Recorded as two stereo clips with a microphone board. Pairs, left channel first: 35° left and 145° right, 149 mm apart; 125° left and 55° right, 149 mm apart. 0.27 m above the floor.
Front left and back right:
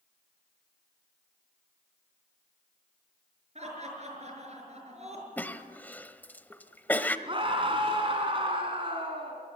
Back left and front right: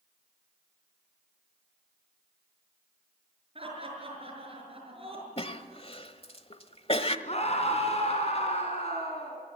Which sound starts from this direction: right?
Laughter, at 3.5 s.